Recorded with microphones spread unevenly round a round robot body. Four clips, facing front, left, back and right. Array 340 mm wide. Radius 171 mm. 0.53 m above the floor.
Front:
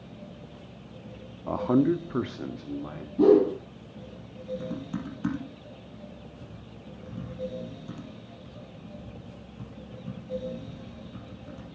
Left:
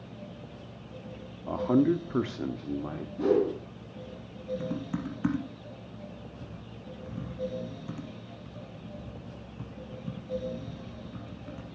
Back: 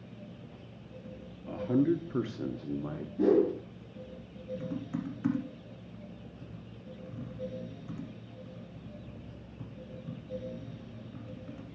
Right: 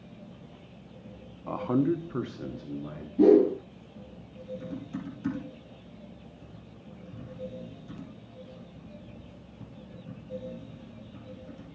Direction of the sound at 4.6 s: 65° left.